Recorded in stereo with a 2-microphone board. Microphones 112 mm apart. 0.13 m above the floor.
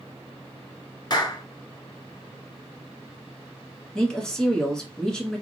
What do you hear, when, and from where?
1.1 s a clap: 40° left (ahead or behind), 1.1 m
4.0 s a woman speaking: 5° left (ahead or behind), 1.3 m